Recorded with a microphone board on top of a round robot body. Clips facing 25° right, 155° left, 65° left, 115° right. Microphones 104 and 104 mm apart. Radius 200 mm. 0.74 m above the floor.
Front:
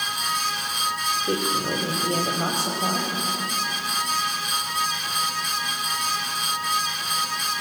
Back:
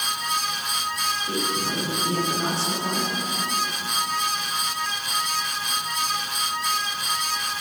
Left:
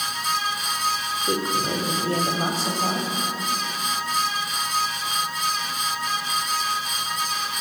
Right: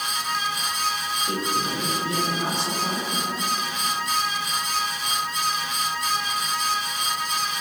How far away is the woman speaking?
About 4 m.